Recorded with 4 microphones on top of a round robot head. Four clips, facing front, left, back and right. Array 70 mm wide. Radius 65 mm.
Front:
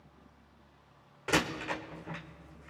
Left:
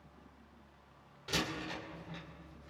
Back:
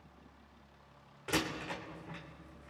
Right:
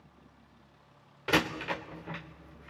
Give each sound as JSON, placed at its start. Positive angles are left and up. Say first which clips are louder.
{"t": 1.3, "sound": "a door slam", "louder": "right 9 dB, front 5 dB", "azimuth_deg": -65, "distance_m": 1.2}